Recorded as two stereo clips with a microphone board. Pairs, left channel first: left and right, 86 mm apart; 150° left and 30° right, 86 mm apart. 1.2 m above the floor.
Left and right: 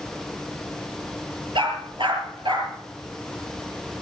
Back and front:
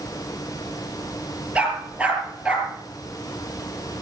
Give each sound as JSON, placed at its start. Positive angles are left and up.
{"t": 1.6, "sound": "a dog barking", "azimuth_deg": -105, "distance_m": 5.5}